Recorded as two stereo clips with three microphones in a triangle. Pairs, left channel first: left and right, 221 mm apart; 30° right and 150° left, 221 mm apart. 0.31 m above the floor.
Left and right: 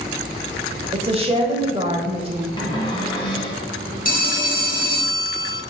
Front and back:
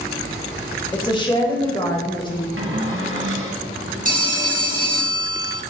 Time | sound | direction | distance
0.9 | a woman speaking | 70° right | 1.3 m
2.6 | a cupboard door | 155° left | 1.5 m
4.0 | a phone ringing | 115° left | 1.2 m